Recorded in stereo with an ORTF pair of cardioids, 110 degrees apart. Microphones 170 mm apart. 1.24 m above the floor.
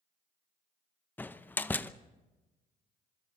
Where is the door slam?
10° left, 0.7 m.